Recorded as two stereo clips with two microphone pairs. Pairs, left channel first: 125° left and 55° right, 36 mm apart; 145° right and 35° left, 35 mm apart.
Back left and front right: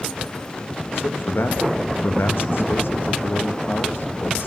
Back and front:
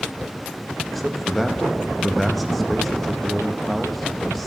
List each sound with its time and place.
0.9 s a man speaking: 130° left, 1.5 m